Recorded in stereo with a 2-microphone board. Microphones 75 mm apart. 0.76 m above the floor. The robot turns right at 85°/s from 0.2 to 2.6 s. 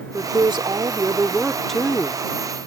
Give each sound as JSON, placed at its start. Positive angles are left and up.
{"t": 0.1, "sound": "a woman speaking", "azimuth_deg": -125}